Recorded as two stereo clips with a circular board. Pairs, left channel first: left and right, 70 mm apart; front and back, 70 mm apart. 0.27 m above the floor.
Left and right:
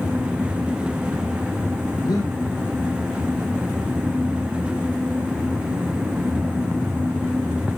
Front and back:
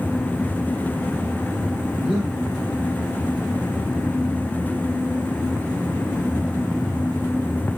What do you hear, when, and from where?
2.0 s breathing: 90° left, 6 m